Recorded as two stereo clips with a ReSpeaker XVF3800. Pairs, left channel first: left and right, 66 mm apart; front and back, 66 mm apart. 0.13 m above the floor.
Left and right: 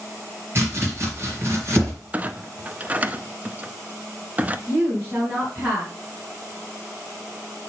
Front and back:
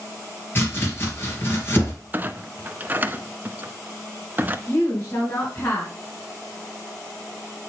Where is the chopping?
50° right, 2.5 m.